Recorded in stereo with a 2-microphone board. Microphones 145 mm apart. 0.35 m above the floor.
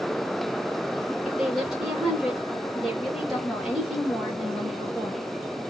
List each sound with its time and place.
1.2 s a woman speaking: 5° right (ahead or behind), 1.7 m